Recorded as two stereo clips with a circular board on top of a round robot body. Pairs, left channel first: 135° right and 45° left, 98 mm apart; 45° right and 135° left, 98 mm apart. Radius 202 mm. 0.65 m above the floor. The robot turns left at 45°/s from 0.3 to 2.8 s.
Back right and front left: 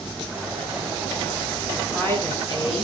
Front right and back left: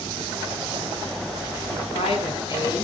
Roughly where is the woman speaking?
Ahead right.